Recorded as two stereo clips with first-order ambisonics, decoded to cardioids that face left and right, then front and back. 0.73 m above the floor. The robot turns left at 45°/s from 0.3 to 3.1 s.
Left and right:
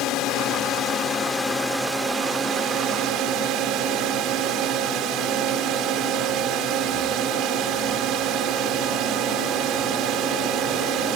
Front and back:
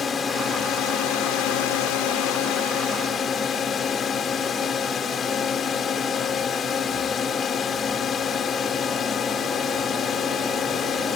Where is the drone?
65° left; by 11.2 s 60° right.